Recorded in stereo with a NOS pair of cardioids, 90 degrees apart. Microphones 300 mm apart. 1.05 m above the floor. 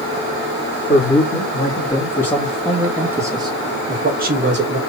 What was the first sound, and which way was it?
A man speaking, 25° left.